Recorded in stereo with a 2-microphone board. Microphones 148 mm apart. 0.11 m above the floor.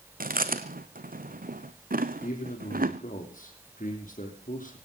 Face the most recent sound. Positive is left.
turn(degrees=65)  # may be behind; listen again after turning